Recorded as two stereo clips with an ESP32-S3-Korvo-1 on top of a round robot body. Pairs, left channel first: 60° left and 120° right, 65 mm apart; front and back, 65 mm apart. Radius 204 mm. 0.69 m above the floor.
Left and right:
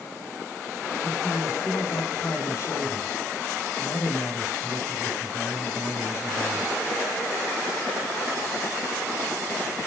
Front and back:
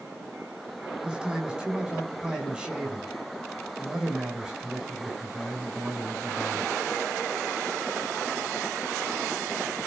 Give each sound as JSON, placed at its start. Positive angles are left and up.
{"t": 1.0, "sound": "a man speaking", "azimuth_deg": 105, "distance_m": 6.5}